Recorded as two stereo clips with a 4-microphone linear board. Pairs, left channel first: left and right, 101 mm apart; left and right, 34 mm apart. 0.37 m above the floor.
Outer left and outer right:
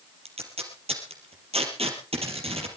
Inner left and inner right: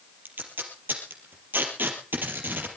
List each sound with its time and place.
0.2 s tape being pulled: 85° right, 3.5 m